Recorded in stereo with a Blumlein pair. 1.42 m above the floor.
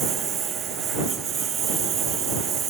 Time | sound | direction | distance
0.0 | a lawn mower | 25° right | ?